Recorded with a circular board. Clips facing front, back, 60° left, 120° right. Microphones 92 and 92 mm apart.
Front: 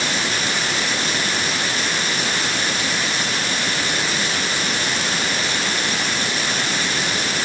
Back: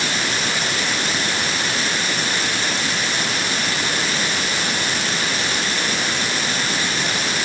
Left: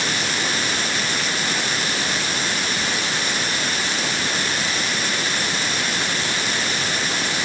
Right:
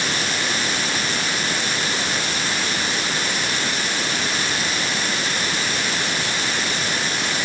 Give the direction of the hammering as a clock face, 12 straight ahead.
No hammering in this recording.